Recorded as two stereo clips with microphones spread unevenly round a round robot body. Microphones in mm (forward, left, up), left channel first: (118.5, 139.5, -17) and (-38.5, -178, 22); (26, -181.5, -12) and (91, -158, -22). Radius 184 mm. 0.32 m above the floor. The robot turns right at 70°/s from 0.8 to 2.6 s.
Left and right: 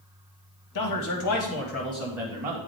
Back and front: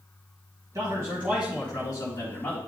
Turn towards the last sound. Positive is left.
turn(degrees=180)